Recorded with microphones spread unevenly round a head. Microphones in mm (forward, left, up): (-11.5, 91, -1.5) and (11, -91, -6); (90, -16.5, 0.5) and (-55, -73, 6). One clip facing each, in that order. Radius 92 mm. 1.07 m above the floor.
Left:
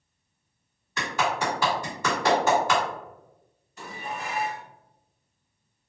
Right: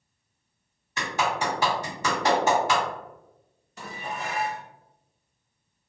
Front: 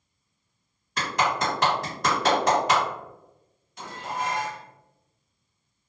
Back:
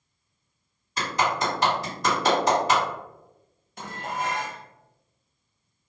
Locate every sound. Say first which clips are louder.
1.0 s a clap: even, even; 15° right, 1.7 m
3.8 s dishes clattering: right 1 dB, back 1 dB; 115° right, 0.5 m